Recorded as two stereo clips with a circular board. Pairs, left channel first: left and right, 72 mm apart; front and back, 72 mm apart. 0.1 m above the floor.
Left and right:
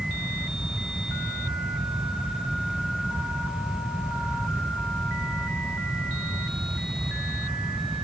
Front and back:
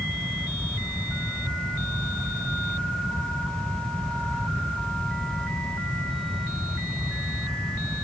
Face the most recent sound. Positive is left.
No sound to turn to.